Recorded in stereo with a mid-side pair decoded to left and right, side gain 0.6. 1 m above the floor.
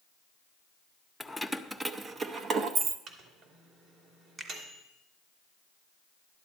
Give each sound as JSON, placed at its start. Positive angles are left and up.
{"t": 1.2, "sound": "keys jangling", "azimuth_deg": 10, "distance_m": 0.7}
{"t": 3.1, "sound": "a microwave", "azimuth_deg": -55, "distance_m": 3.0}
{"t": 4.4, "sound": "a finger snap", "azimuth_deg": -30, "distance_m": 2.5}